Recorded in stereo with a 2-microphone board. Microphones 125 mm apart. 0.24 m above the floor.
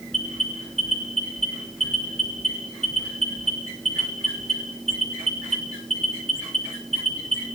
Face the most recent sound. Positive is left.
turn(degrees=-55)  # may be behind; listen again after turning